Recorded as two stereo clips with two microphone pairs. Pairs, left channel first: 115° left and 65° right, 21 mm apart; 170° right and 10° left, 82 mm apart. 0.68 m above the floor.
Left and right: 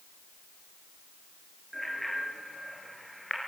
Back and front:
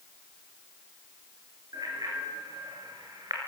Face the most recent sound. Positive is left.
turn(degrees=40)